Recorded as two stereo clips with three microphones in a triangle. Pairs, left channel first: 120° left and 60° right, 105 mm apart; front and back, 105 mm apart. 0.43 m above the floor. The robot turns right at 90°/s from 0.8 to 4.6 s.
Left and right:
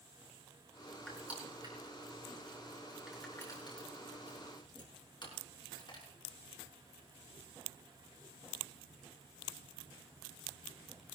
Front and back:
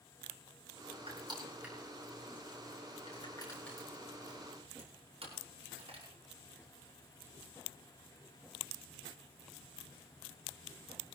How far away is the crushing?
About 6.5 m.